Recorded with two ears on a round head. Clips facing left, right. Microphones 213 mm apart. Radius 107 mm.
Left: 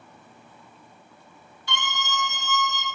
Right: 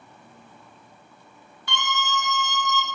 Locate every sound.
1.7 s a scream: 50° right (ahead or behind), 1.8 m; by 2.9 s 60° right (ahead or behind), 2.5 m